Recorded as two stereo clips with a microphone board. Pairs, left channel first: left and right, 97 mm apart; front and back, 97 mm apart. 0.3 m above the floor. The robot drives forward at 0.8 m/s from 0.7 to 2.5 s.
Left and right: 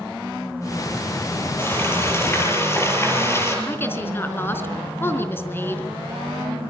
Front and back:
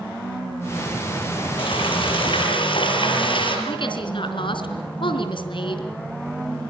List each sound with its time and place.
1.6 s frying: 25° left, 6.5 m
3.7 s a woman speaking: 25° left, 3.5 m